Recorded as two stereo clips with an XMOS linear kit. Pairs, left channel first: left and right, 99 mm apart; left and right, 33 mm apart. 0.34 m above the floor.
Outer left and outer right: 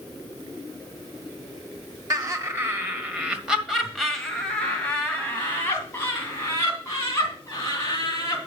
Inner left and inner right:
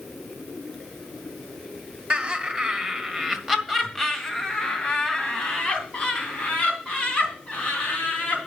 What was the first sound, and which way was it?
Laughter, 35° right (ahead or behind).